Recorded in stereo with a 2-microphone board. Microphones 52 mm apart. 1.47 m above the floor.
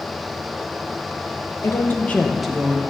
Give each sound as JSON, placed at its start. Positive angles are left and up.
{"t": 1.6, "sound": "a woman speaking", "side_deg": 60, "distance_m": 1.2}